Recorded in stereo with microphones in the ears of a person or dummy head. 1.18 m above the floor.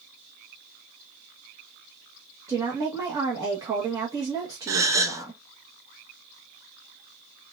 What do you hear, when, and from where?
2.5 s a woman speaking: 15° right (ahead or behind), 1.2 m
4.7 s a gasp: 15° right (ahead or behind), 0.5 m